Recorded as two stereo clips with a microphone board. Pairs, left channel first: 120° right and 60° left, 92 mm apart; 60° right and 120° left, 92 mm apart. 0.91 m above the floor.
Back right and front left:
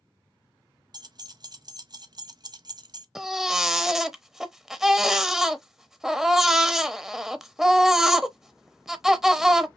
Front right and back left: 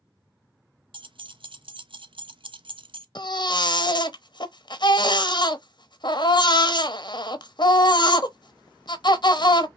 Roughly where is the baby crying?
Ahead right.